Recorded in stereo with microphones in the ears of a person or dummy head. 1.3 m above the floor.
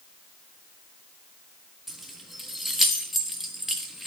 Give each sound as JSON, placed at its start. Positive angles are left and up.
{"t": 1.9, "sound": "keys jangling", "side_deg": 0, "distance_m": 1.4}